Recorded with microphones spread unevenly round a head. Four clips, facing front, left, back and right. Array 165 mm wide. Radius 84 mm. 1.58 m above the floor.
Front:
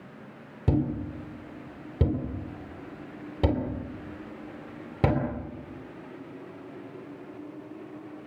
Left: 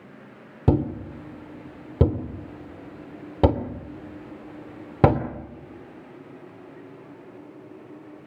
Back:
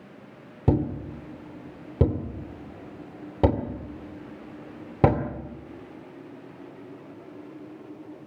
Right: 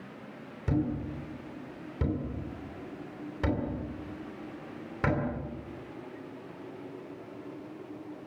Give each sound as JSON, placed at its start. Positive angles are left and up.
{"t": 0.7, "sound": "a thud", "azimuth_deg": 115, "distance_m": 2.5}